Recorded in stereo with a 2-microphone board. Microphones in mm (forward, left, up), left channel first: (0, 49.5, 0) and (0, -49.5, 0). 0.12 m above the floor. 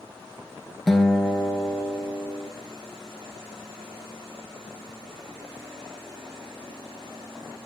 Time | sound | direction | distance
0.9 | a guitar | centre (ahead or behind) | 1.1 m